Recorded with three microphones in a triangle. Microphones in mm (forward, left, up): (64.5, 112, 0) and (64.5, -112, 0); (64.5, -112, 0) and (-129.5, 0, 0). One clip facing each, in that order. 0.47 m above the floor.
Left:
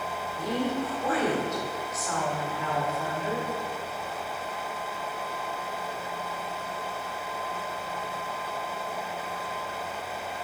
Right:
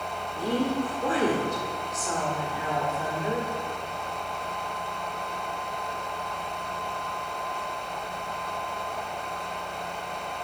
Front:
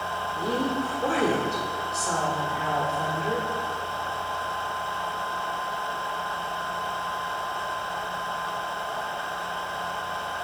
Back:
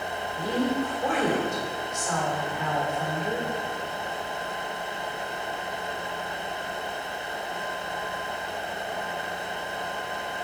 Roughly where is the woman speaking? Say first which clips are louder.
Right 3 dB, back 1 dB; ahead right.